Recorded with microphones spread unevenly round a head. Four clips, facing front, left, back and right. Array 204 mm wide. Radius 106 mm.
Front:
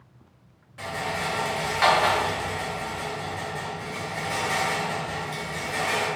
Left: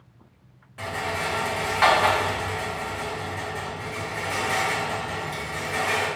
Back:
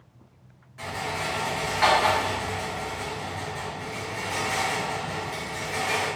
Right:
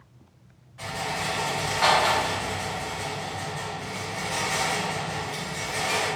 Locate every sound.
0.8 s a rattle: 65° left, 1.3 m